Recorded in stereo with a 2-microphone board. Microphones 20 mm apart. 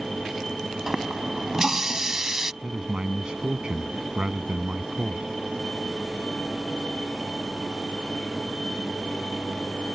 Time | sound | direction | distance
0.9 | a running tap | 20° right (ahead or behind) | ?
2.6 | a man speaking | 45° right (ahead or behind) | ?